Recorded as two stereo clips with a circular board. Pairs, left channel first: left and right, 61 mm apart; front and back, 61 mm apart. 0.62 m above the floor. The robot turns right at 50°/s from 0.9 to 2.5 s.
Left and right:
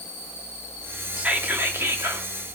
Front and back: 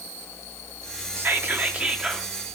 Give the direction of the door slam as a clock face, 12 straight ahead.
No door slam in this recording.